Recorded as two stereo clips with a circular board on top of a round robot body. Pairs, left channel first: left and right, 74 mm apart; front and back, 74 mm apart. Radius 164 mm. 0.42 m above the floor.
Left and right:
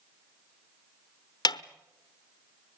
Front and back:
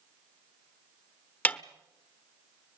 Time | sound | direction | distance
1.4 | a snare drum | 70° left | 1.1 m